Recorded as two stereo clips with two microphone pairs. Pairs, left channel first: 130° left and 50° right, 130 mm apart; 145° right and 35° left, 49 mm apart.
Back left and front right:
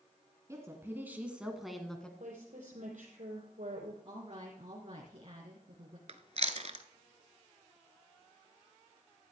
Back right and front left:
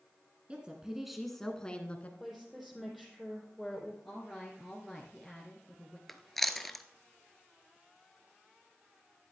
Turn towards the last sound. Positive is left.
turn(degrees=-55)